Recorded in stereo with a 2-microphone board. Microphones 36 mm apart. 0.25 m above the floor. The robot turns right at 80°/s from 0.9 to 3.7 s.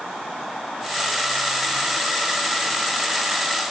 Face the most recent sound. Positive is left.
No sound to turn to.